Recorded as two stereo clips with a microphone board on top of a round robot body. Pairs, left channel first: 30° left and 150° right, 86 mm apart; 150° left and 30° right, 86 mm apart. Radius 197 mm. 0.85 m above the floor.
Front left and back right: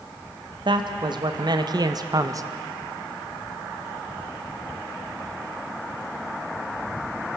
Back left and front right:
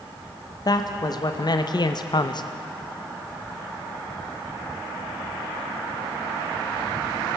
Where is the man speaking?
170° right, 2 m; by 2.4 s 170° left, 1.3 m.